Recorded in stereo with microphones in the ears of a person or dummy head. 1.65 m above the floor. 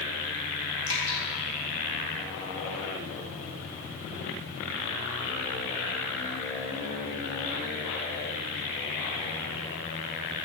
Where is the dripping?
75° left (ahead or behind), 2.5 m.